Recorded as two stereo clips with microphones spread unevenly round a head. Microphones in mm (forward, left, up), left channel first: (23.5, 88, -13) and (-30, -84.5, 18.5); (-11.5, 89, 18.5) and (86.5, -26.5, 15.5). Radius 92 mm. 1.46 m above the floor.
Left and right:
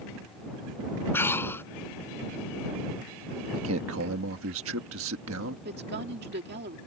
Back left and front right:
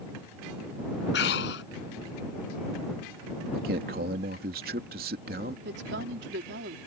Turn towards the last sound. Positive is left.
turn(degrees=-70)